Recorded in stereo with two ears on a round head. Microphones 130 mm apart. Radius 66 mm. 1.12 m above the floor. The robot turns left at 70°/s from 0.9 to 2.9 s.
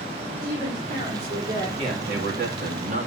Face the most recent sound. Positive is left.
turn(degrees=-115)